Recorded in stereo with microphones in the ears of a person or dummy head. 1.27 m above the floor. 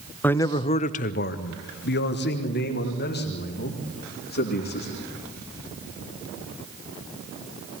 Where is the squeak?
No squeak in this recording.